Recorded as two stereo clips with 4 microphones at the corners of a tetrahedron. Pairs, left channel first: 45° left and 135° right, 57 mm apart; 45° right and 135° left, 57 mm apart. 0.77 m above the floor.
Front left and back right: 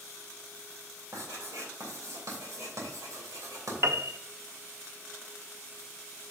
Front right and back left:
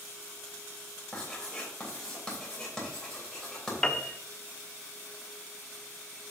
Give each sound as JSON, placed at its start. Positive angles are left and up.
{"t": 1.1, "sound": "writing", "azimuth_deg": -125, "distance_m": 3.0}
{"t": 3.8, "sound": "a piano", "azimuth_deg": -115, "distance_m": 0.6}